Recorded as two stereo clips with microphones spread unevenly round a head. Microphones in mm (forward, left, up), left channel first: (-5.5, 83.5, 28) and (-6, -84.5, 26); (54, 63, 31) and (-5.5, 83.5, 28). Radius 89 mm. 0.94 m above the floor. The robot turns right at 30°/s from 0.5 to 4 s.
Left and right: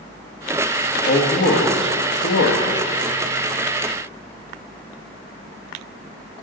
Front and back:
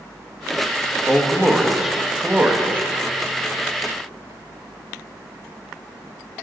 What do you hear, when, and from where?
1.1 s a man speaking: 55° left, 1.0 m; by 2.9 s 110° left, 1.0 m